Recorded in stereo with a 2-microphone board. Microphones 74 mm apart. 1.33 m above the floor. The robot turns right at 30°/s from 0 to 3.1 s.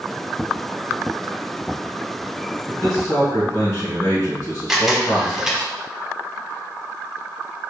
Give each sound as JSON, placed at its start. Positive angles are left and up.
{"t": 2.7, "sound": "a man speaking", "side_deg": 40, "distance_m": 1.9}
{"t": 4.7, "sound": "a camera shutter", "side_deg": -5, "distance_m": 0.8}